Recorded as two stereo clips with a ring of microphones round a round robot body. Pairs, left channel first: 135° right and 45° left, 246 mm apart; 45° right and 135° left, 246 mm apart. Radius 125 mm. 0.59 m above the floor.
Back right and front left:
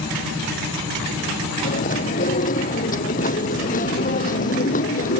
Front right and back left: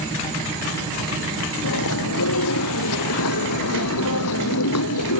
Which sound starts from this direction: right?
Chewing, at 1.6 s.